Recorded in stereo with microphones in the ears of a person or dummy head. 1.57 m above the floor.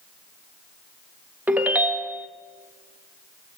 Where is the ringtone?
10° right (ahead or behind), 1.4 m.